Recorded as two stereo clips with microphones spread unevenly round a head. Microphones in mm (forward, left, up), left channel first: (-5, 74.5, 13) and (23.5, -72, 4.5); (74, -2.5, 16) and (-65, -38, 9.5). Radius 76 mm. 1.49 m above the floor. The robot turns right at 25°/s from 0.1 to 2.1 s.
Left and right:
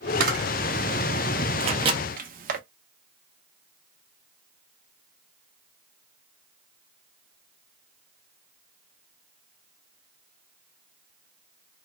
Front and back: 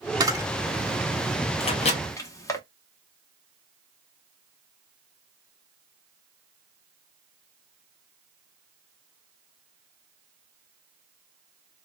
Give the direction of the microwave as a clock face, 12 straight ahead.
1 o'clock.